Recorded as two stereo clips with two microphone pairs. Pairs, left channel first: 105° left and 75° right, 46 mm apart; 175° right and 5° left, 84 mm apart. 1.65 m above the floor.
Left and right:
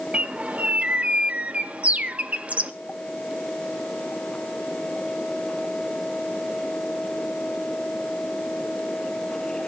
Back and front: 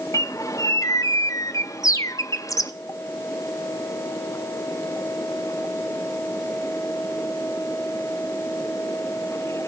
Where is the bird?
130° right, 0.7 m.